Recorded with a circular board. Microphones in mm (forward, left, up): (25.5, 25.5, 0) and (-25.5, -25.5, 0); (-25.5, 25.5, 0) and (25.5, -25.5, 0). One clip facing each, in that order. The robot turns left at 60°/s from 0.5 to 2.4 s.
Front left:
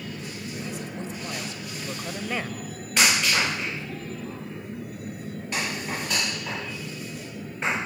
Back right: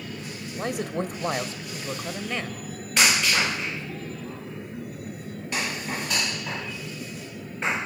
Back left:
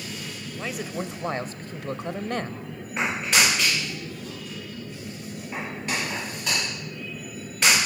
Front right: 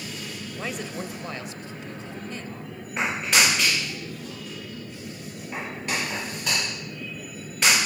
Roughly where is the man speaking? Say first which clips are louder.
Back right 9 dB, back left 2 dB; behind right.